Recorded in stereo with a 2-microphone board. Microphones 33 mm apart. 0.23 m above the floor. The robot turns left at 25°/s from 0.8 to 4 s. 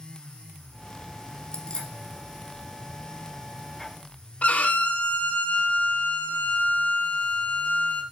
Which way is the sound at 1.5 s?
25° left (ahead or behind).